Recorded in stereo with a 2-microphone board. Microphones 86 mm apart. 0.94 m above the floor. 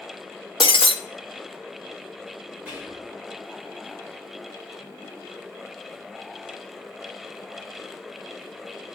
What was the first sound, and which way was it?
Breaking glass, 85° left.